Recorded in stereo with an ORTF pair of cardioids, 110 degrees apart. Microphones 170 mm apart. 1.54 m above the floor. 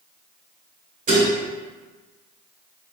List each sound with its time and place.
1.1 s dishes clattering: 55° right, 1.9 m